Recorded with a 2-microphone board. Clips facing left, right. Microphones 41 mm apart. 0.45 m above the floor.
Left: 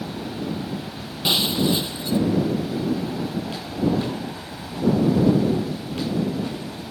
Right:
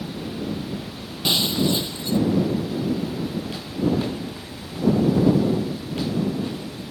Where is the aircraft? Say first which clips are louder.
Even; 55° left (ahead or behind).